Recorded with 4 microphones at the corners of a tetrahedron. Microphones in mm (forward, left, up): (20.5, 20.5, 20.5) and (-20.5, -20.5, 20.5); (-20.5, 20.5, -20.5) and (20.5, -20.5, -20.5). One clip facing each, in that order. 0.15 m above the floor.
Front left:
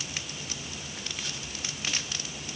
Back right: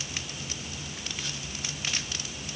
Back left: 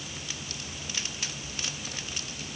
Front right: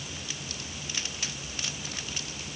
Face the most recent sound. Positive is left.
No sound to turn to.